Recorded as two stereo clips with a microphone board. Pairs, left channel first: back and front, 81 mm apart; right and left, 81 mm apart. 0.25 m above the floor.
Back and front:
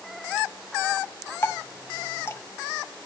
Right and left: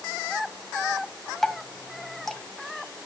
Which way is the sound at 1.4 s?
170° right.